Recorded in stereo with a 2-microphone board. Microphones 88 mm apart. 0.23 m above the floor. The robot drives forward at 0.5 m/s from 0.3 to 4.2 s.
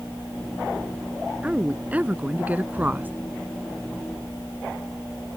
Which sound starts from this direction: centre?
A woman speaking, at 1.4 s.